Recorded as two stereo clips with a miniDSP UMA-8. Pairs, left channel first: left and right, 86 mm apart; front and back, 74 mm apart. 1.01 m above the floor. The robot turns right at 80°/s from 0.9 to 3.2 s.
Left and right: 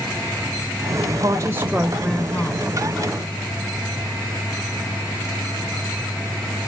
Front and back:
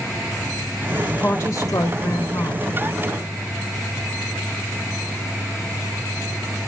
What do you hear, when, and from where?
1.2 s a woman speaking: 60° right, 1.0 m; by 2.7 s 60° left, 1.0 m